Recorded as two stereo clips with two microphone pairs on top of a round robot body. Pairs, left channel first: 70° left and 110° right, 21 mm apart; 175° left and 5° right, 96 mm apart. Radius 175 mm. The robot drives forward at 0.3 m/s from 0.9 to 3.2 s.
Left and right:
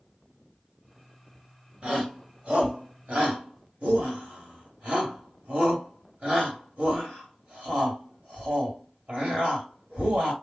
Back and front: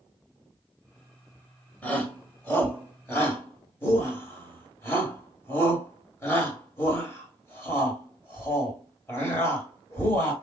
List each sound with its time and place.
1.8 s a shout: 110° right, 2.5 m; by 10.3 s 120° right, 2.5 m